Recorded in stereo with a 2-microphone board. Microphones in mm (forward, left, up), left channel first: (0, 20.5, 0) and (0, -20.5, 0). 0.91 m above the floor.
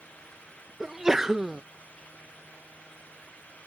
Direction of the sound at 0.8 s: 10° right (ahead or behind).